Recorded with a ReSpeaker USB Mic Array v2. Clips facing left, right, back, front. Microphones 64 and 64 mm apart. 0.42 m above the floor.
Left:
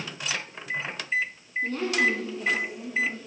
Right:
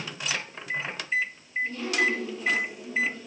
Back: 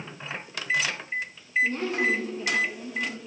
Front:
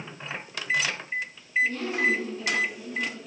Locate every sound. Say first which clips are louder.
1.6 s a woman speaking: left 2 dB, even; 120° left, 5 m; by 3.2 s 145° left, 4 m